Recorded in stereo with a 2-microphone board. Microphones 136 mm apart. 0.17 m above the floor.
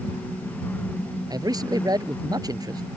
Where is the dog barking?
I don't hear a dog barking.